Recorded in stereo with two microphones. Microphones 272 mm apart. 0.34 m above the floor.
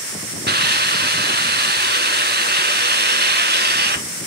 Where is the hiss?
40° right (ahead or behind), 1.0 m.